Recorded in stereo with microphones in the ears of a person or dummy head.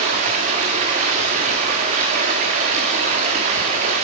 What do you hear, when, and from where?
0.0 s running water: 35° right (ahead or behind), 1.5 m